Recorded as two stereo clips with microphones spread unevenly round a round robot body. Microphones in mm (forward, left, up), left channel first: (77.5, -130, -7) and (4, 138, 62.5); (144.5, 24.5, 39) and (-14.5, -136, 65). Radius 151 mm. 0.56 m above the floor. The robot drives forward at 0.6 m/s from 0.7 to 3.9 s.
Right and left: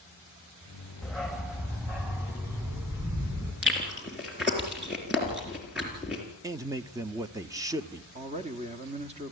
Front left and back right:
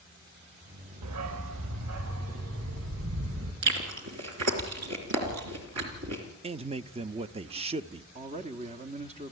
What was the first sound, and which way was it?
A dog barking, 165° right.